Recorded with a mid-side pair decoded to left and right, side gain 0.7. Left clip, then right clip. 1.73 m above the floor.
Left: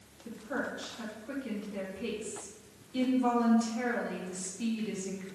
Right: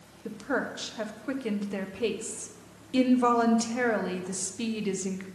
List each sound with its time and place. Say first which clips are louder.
0.2 s a woman speaking: right 5 dB; 60° right, 1.2 m